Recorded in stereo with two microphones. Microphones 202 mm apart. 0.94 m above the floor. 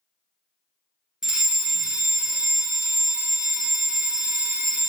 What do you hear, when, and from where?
1.2 s a fire alarm: 5° right (ahead or behind), 1.2 m